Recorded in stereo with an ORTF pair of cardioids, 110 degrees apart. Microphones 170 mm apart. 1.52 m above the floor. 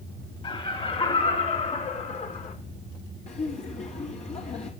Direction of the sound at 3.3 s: 40° left.